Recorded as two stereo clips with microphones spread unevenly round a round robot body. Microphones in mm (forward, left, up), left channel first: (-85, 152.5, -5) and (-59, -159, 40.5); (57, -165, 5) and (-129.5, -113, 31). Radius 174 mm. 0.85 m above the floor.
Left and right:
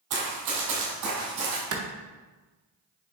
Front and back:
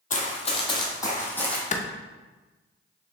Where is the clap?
45° right, 0.5 m.